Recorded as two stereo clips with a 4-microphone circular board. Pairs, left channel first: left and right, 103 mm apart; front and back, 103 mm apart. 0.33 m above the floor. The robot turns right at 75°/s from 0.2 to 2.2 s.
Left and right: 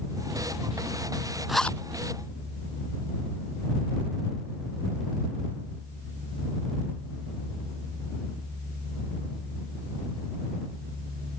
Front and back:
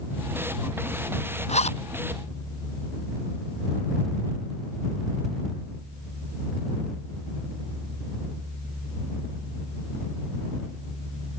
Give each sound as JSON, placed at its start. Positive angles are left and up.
{"t": 1.5, "sound": "a zipper", "azimuth_deg": -5}